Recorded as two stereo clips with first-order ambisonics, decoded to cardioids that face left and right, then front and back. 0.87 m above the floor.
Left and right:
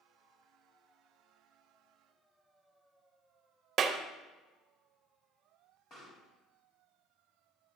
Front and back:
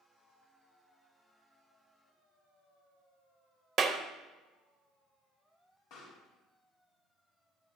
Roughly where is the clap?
Behind right.